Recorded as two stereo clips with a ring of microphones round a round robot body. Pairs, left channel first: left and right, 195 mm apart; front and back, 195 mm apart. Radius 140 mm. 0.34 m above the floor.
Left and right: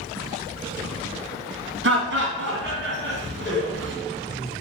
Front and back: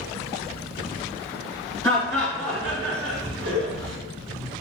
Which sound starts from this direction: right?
Laughter, at 1.8 s.